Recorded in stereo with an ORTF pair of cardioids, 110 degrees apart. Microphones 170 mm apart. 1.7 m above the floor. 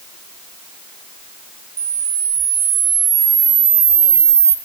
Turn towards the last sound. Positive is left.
turn(degrees=-35)